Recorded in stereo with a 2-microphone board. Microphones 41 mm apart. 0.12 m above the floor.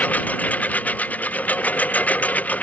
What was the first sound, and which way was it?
A lawn mower, 35° left (ahead or behind).